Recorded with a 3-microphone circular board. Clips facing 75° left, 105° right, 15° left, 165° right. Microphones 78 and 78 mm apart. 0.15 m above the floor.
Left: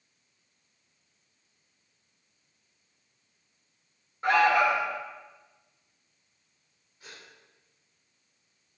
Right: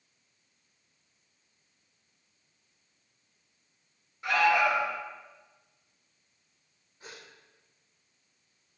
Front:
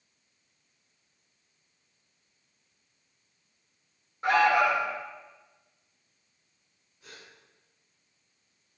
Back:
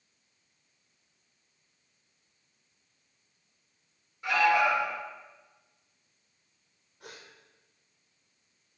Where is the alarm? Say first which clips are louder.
Left 3 dB, front 2 dB; 35° left, 3.5 m.